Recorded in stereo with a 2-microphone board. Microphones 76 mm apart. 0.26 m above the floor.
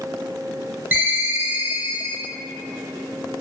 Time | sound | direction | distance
0.9 | a ringtone | 30° right (ahead or behind) | 0.5 m